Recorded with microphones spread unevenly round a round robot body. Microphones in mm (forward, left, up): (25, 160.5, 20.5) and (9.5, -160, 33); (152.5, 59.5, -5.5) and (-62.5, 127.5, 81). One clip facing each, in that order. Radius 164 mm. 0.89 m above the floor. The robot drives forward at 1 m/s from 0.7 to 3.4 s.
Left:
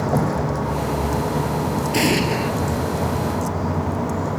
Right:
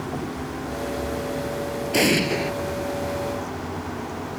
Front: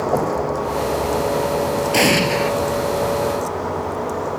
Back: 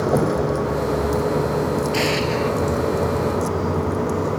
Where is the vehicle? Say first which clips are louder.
Left 8 dB, back 1 dB; 95° left; by 4.4 s 105° left.